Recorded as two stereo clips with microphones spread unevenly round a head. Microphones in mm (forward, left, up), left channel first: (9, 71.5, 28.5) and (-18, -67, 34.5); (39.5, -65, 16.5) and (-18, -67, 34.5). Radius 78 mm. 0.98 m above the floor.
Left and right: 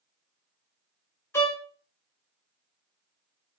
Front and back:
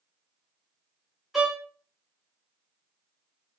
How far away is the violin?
About 0.7 m.